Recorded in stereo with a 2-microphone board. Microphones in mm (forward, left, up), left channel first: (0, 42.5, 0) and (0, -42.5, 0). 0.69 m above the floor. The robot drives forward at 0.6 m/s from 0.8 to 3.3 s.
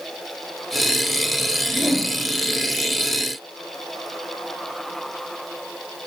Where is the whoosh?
5° left (ahead or behind), 2.0 m.